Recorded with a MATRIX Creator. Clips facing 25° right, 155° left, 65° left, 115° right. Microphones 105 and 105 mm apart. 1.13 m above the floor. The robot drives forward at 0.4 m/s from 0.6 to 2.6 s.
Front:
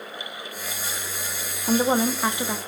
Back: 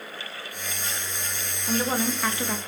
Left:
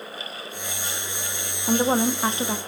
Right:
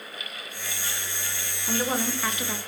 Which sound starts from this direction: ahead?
A woman speaking, at 1.7 s.